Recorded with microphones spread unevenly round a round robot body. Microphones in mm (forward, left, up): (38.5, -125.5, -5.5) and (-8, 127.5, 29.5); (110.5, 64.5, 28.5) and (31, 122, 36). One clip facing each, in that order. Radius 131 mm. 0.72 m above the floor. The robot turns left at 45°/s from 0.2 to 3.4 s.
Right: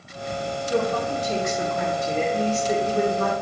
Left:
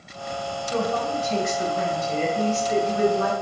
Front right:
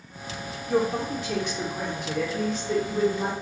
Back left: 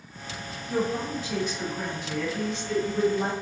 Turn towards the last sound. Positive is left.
turn(degrees=-130)